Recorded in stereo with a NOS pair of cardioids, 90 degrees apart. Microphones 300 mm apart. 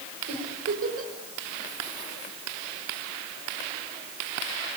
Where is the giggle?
50° right, 6.5 m.